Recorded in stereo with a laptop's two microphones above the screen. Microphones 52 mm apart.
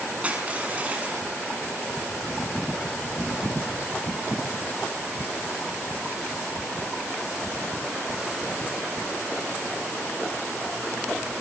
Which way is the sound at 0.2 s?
25° right (ahead or behind).